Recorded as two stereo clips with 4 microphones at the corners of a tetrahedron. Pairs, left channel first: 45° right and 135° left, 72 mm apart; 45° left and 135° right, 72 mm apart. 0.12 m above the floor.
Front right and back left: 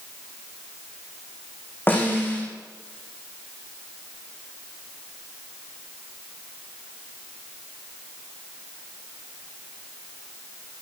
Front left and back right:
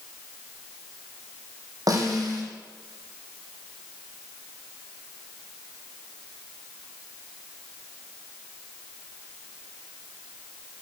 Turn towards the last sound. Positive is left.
turn(degrees=-105)